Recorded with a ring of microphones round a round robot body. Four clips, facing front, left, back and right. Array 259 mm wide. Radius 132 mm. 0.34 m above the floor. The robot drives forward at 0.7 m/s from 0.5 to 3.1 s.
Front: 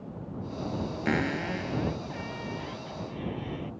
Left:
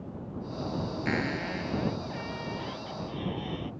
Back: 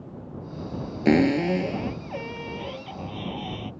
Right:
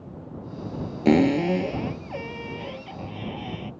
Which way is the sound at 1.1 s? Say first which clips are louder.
Right 16 dB, back 11 dB; 125° right.